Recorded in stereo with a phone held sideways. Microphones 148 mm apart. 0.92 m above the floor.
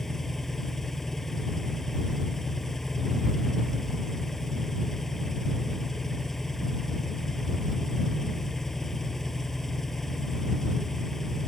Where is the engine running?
Centre (ahead or behind).